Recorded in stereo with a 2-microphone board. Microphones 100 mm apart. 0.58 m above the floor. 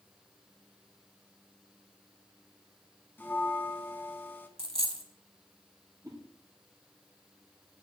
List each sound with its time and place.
3.2 s a bell: 20° left (ahead or behind), 0.8 m
4.6 s a dropped coin: 65° right (ahead or behind), 0.9 m
6.0 s a whoosh: 35° right (ahead or behind), 3.5 m